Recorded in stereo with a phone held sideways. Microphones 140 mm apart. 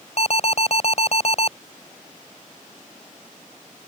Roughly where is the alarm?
Left.